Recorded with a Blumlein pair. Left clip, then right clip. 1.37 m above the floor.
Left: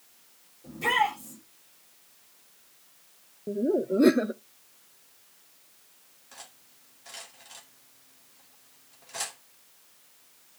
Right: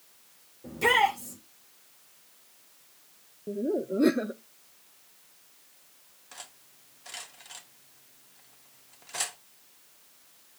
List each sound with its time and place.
0.6 s a shout: 65° right, 6 m
3.5 s laughter: 10° left, 0.5 m
6.3 s cutlery clinking: 10° right, 2 m